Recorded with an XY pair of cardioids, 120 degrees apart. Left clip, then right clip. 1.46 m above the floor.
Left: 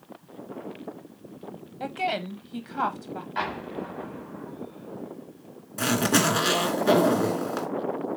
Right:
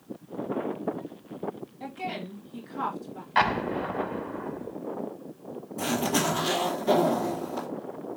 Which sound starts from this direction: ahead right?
An explosion, at 3.4 s.